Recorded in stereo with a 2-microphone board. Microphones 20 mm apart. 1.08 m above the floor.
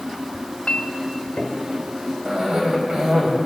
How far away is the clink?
About 2.5 m.